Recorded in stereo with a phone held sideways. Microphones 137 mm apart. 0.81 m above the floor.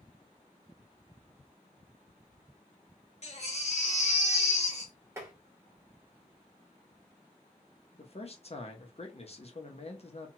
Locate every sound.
3.2 s a baby crying: 50° left (ahead or behind), 0.8 m
5.2 s tapping: 20° right (ahead or behind), 1.1 m
8.0 s a man speaking: 45° left (ahead or behind), 0.7 m